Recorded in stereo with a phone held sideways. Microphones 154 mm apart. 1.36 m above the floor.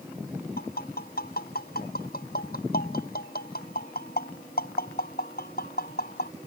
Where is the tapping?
85° left.